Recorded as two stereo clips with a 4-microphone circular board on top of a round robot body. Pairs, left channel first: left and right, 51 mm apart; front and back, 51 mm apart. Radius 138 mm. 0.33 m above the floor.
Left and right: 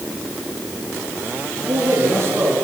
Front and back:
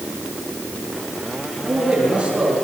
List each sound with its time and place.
1.6 s a man speaking: 115° right, 8.5 m